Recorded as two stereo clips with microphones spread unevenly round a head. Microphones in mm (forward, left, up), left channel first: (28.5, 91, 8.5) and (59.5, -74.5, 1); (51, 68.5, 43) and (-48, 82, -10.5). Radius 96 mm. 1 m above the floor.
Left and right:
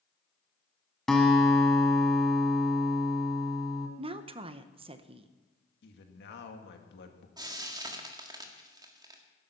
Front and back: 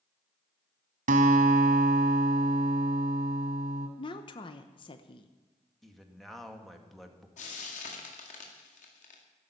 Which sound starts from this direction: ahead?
Frying, at 7.4 s.